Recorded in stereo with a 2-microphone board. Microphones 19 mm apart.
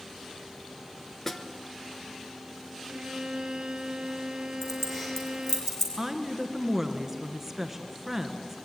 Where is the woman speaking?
20° right (ahead or behind), 1.9 m.